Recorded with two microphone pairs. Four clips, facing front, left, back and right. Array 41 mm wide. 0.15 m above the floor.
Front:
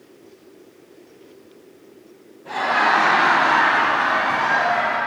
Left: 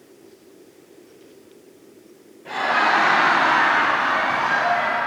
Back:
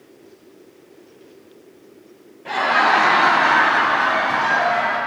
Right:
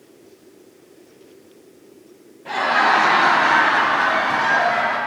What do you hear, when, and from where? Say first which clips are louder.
2.5 s laughter: right 2 dB, back 2 dB; 175° right, 3 m; by 5.0 s 80° right, 2.5 m